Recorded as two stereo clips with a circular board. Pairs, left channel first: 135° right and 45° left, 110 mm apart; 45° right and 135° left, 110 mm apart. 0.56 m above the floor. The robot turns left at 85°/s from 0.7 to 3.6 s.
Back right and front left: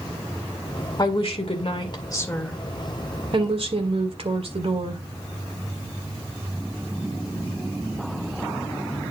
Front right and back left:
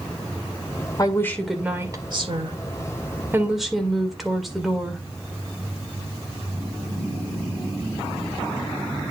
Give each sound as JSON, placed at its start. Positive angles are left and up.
{"t": 1.0, "sound": "a woman speaking", "azimuth_deg": -90, "distance_m": 1.8}